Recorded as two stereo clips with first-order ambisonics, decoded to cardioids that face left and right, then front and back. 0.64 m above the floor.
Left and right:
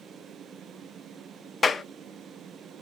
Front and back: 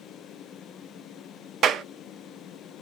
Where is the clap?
155° left, 0.5 m.